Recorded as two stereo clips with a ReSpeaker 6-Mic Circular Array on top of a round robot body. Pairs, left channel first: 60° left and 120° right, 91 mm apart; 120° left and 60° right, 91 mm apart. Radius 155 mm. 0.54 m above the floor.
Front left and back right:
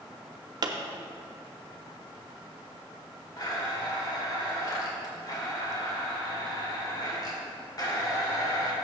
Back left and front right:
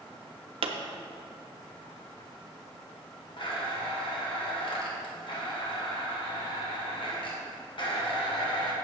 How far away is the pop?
About 0.6 m.